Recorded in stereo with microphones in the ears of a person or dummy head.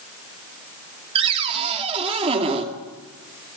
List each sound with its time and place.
1.1 s a cupboard door: 30° right (ahead or behind), 2 m